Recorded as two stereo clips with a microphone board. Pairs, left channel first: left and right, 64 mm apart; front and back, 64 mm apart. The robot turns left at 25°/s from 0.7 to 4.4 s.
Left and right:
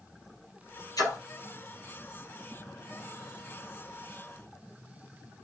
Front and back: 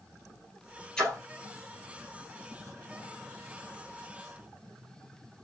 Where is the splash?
75° left, 3 m; by 1.2 s 70° left, 3 m.